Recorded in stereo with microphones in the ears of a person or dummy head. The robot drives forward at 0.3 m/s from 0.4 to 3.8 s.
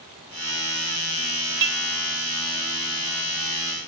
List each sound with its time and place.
1.6 s dishes clattering: 50° right (ahead or behind), 0.5 m